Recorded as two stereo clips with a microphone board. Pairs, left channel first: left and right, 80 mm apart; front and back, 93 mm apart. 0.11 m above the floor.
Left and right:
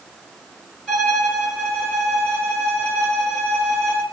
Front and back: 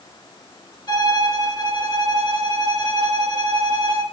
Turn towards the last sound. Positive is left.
turn(degrees=15)